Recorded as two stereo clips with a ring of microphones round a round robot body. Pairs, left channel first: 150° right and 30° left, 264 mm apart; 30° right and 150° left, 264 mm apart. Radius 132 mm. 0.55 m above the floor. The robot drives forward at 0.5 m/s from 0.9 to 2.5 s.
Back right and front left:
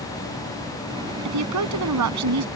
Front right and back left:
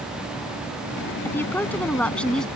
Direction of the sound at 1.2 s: 50° left.